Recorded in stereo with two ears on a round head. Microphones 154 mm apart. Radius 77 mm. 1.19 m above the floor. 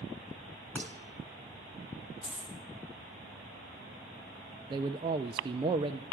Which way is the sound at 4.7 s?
25° right (ahead or behind).